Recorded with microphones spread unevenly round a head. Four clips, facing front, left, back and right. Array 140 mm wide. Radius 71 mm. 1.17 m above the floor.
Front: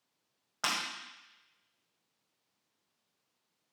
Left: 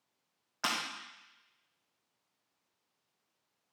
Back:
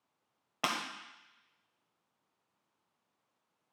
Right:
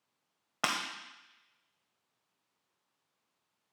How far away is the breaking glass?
About 1.2 m.